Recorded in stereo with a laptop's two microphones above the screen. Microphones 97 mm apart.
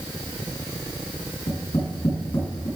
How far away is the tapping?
About 6.5 m.